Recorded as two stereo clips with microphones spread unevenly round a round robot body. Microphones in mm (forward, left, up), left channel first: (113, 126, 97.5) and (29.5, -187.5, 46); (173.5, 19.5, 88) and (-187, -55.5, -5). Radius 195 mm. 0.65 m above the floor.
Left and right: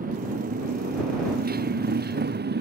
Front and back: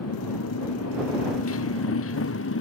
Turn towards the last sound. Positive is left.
turn(degrees=-45)